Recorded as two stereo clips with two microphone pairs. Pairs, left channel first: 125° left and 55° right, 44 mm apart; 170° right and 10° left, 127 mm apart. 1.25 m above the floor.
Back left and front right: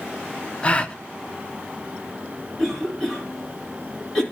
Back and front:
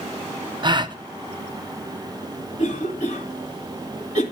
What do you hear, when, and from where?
0.6 s a gasp: 60° left, 0.5 m
2.6 s a cough: 155° right, 2.5 m